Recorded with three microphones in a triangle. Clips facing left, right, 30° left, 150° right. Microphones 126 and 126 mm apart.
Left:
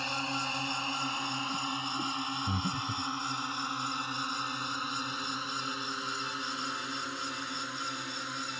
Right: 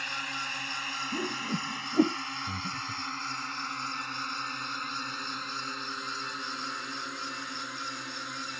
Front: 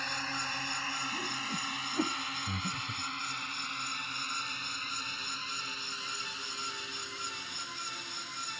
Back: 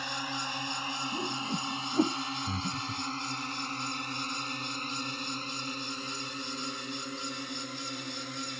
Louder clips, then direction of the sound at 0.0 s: Left 4 dB, back 2 dB; 140° left.